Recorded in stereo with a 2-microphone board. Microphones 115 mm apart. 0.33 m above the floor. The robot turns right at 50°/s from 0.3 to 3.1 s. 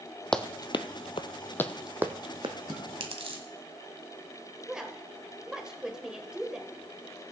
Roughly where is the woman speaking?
Centre.